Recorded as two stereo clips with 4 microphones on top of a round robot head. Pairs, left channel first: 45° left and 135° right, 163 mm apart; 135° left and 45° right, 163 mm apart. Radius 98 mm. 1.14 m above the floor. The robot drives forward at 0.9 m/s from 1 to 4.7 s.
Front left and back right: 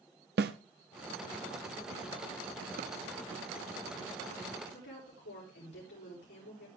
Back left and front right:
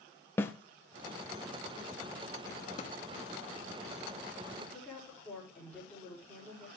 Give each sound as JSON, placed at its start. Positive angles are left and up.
{"t": 0.4, "sound": "a snare drum", "azimuth_deg": -150, "distance_m": 0.7}
{"t": 2.8, "sound": "a drawer", "azimuth_deg": -175, "distance_m": 0.7}
{"t": 4.6, "sound": "a woman speaking", "azimuth_deg": 55, "distance_m": 6.0}